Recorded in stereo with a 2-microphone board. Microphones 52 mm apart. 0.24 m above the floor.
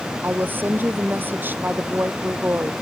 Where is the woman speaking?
35° right (ahead or behind).